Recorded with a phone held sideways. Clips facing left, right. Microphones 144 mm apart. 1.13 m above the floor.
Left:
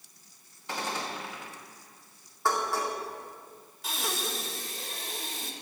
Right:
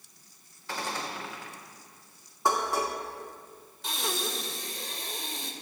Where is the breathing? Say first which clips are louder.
Right 1 dB; 5° left (ahead or behind), 1.3 m.